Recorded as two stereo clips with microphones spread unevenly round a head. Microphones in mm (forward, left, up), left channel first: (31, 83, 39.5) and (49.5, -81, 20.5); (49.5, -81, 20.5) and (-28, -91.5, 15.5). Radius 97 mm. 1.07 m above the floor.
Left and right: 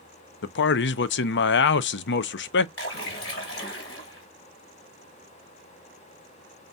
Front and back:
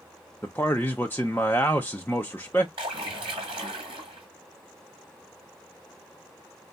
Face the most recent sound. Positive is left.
turn(degrees=135)